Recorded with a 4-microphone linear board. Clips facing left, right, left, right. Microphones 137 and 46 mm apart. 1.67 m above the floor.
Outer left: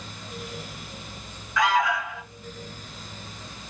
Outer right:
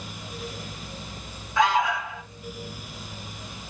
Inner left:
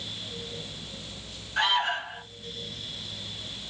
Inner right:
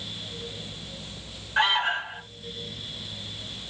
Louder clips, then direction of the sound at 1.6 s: Outer right 1 dB, inner right 2 dB; 25° right (ahead or behind).